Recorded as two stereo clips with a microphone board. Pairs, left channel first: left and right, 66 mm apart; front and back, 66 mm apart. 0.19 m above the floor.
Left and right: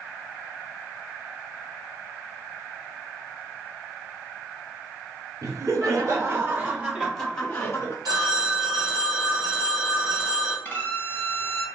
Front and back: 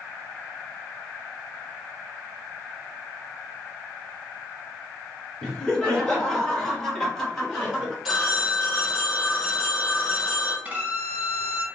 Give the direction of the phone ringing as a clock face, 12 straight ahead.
3 o'clock.